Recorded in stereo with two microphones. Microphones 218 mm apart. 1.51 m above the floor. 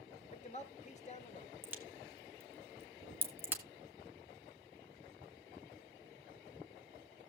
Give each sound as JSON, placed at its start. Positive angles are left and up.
{"t": 0.3, "sound": "a man speaking", "side_deg": 35, "distance_m": 1.5}
{"t": 1.6, "sound": "a crack", "side_deg": -10, "distance_m": 1.6}